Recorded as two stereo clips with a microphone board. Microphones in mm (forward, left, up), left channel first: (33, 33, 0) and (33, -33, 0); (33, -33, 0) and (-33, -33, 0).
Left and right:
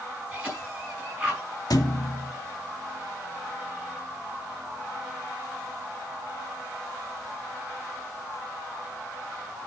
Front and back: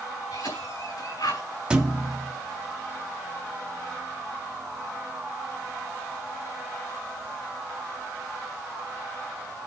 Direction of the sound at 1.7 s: 105° left.